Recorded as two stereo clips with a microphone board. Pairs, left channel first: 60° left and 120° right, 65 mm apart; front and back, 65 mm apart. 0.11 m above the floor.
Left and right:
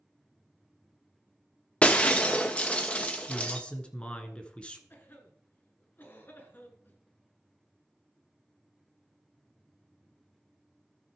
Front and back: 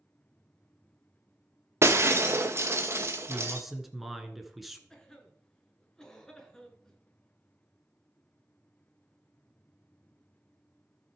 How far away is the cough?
About 1.6 m.